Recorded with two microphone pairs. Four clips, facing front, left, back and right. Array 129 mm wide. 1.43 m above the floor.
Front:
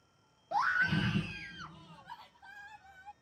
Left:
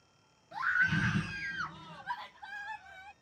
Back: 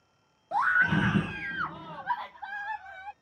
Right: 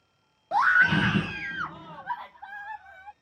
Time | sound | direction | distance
0.5 | a scream | 95° right | ?